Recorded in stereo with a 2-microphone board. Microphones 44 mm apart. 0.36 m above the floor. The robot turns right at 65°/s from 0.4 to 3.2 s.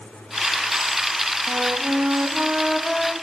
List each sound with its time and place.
1.5 s a flute: 95° right, 2.5 m; by 3.1 s 15° left, 2.5 m